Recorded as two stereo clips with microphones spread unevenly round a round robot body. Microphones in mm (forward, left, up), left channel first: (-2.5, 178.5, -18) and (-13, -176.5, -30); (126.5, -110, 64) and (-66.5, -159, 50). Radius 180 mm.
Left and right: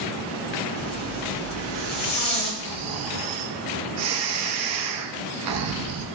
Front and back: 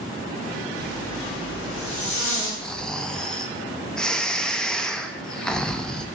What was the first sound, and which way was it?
A zipper, 15° left.